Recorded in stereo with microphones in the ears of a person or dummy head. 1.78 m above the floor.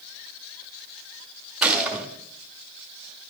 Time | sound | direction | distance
1.6 | a gunshot | 10° right (ahead or behind) | 1.9 m